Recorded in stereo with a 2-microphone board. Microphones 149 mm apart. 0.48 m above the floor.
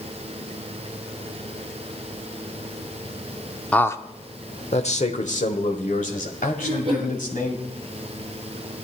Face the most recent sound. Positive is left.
turn(degrees=-45)  # may be behind; listen again after turning